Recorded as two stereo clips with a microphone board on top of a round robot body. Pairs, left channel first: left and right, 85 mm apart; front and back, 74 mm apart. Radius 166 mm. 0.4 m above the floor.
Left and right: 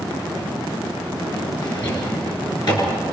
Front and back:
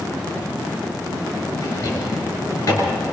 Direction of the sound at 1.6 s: 55° left.